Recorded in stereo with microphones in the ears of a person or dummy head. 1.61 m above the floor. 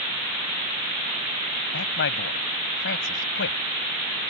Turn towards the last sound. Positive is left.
turn(degrees=65)  # may be behind; listen again after turning